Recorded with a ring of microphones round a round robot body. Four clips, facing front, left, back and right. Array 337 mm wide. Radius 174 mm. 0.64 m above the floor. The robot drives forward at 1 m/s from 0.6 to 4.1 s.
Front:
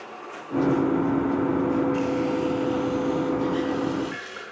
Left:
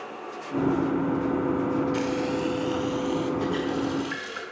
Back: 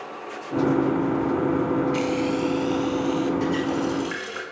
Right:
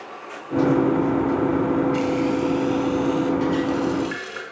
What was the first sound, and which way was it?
Frying, 155° left.